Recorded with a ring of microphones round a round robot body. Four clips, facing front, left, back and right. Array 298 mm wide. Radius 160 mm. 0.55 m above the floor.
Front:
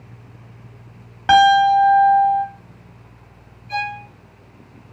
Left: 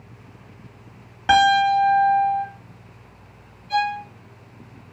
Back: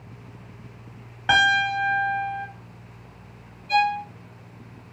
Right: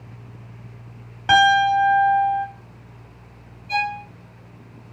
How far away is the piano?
About 1.4 m.